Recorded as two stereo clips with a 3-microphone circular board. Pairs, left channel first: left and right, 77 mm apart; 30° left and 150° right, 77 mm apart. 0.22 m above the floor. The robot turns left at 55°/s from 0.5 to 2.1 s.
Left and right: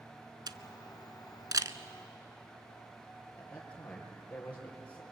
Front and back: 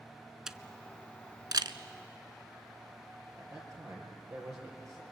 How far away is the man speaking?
About 5.5 m.